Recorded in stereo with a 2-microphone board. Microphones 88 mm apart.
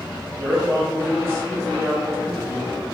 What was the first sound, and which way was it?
A man speaking, 30° right (ahead or behind).